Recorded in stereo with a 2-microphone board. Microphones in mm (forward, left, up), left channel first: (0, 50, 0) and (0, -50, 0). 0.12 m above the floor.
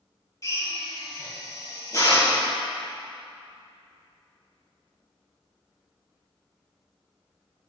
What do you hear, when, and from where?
0.4 s a drill: 35° left (ahead or behind), 3.5 m